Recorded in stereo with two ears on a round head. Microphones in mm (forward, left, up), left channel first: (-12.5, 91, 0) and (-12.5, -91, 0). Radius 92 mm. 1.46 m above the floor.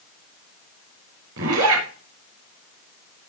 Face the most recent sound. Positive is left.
turn(degrees=-75)  # may be behind; listen again after turning